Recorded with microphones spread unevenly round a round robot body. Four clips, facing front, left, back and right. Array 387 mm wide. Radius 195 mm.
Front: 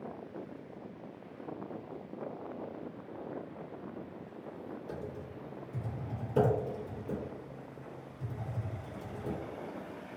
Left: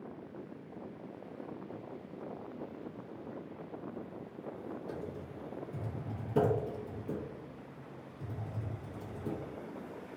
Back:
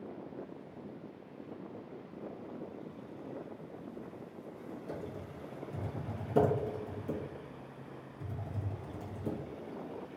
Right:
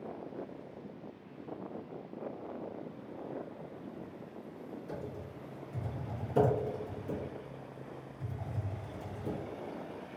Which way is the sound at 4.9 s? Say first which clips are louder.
Even, even; 160° left.